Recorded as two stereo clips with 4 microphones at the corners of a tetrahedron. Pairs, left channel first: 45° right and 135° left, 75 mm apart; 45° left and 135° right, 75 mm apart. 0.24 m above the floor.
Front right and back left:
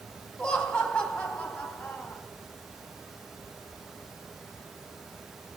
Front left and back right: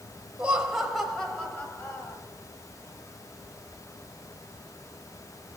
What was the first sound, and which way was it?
Laughter, 100° right.